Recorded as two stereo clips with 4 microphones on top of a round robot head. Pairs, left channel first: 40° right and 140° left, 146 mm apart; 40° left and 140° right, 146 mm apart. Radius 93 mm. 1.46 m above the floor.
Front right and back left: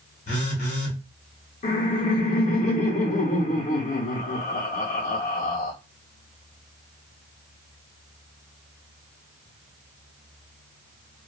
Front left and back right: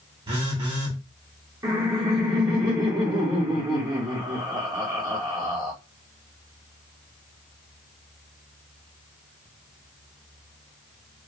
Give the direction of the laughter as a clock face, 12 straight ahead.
3 o'clock.